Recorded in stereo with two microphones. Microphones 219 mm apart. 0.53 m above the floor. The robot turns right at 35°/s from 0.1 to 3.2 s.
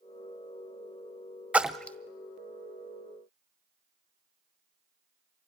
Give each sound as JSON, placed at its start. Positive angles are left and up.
{"t": 1.5, "sound": "a splash", "side_deg": -5, "distance_m": 0.7}